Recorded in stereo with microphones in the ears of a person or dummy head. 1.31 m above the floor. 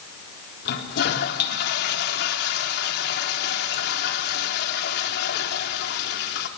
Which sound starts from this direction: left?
A toilet flushing, at 0.7 s.